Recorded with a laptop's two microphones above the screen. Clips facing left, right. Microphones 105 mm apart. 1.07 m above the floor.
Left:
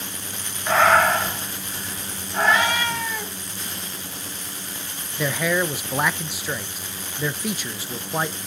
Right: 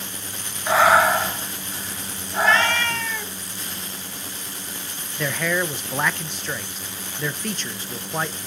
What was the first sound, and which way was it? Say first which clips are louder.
Breathing: right 1 dB; 10° right (ahead or behind).